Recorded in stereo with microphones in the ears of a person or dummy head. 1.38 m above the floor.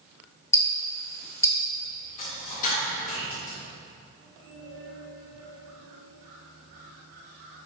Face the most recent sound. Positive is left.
turn(degrees=40)  # may be behind; listen again after turning